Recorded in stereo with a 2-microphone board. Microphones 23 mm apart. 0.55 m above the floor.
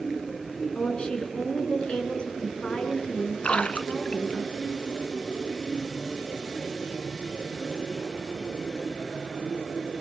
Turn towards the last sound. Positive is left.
turn(degrees=65)  # may be behind; listen again after turning